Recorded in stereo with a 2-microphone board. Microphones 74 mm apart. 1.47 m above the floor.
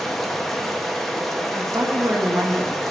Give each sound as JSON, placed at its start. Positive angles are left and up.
{"t": 0.0, "sound": "running water", "side_deg": 5, "distance_m": 1.0}
{"t": 1.6, "sound": "a woman speaking", "side_deg": -35, "distance_m": 1.8}